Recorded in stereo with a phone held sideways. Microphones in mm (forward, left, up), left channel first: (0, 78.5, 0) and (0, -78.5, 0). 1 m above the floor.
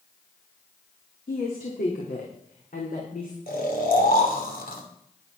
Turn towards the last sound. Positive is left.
turn(degrees=80)